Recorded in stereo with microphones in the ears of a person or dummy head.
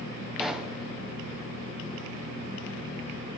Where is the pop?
5° right (ahead or behind), 1.1 m.